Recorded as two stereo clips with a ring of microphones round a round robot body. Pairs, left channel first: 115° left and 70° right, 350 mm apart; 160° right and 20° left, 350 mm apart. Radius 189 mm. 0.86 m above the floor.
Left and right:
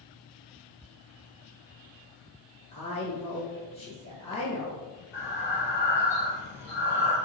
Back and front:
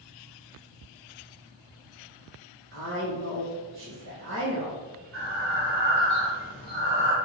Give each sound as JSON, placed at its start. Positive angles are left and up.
{"t": 2.7, "sound": "a woman speaking", "azimuth_deg": 50, "distance_m": 1.0}
{"t": 5.1, "sound": "breathing", "azimuth_deg": 70, "distance_m": 0.7}